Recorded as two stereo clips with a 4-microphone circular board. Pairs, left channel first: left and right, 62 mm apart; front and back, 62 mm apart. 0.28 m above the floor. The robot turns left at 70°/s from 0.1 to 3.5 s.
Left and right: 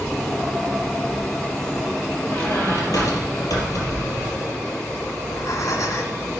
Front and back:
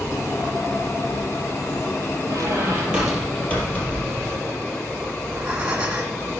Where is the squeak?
150° left, 4 m; by 4.5 s 65° left, 4 m.